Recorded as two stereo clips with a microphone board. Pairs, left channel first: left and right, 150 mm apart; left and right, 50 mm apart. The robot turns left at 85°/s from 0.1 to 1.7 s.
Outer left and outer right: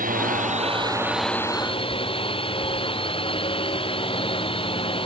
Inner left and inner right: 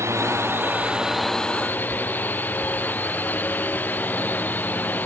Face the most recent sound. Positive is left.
turn(degrees=140)